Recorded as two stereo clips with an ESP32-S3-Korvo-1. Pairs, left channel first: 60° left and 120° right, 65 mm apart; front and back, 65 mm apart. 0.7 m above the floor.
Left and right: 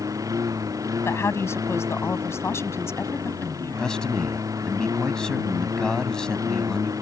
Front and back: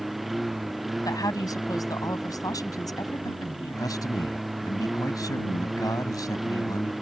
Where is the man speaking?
20° right.